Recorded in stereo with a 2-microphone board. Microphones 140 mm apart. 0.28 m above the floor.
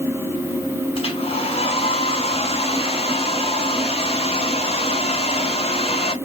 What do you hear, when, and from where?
0.9 s a hair dryer: 45° left (ahead or behind), 0.7 m